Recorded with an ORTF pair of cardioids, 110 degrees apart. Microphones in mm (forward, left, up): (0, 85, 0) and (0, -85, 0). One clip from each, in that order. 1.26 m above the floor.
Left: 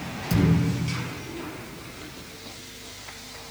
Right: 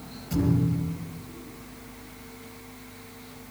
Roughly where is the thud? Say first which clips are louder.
Left 1 dB; ahead left.